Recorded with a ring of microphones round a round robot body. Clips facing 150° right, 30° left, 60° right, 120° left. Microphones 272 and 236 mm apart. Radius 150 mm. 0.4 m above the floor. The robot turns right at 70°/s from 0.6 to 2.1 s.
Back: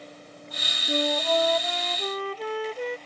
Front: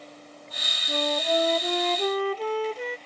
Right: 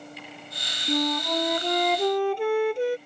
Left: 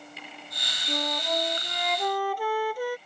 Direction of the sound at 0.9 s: 80° right.